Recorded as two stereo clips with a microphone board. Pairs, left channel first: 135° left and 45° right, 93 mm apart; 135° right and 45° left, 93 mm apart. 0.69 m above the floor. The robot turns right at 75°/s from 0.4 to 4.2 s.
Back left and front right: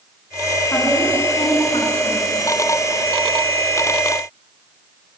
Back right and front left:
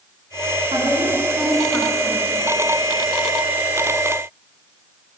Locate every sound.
0.7 s a woman speaking: 65° left, 7.5 m; by 2.4 s 165° right, 7.5 m